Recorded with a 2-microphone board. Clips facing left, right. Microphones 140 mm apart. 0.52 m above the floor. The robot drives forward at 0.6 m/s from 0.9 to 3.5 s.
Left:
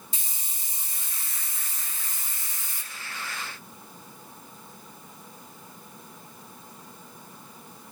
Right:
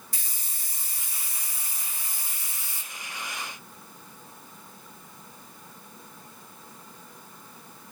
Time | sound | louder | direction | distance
0.1 | a hiss | left 1 dB | 25° left (ahead or behind) | 1.2 m